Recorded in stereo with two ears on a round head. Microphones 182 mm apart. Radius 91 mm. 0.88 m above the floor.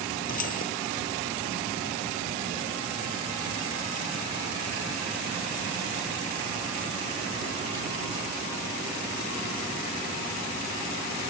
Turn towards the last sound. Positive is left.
turn(degrees=45)  # may be behind; listen again after turning